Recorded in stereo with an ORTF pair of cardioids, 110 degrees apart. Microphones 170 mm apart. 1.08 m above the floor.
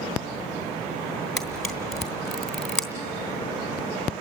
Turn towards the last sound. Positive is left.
turn(degrees=5)